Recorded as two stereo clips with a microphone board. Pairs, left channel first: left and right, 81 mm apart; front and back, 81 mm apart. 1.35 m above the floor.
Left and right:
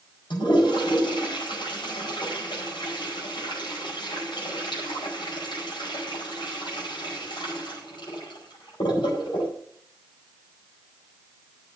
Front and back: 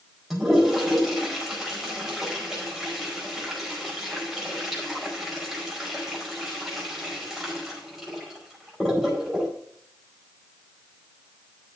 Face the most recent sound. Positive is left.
turn(degrees=90)